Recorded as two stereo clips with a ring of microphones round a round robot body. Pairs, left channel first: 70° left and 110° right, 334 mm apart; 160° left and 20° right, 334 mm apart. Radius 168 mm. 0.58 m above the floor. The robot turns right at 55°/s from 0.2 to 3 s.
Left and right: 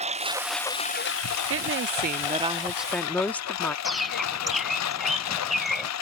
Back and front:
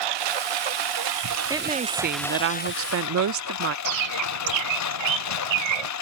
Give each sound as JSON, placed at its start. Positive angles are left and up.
{"t": 0.0, "sound": "a lawn mower", "azimuth_deg": -40}
{"t": 1.5, "sound": "a woman speaking", "azimuth_deg": -100}
{"t": 3.9, "sound": "a bird", "azimuth_deg": -25}